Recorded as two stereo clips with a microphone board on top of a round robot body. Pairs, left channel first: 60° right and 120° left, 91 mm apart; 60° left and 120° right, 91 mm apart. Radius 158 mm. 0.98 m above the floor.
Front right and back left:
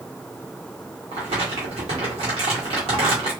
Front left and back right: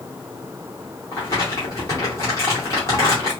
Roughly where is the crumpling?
Behind left.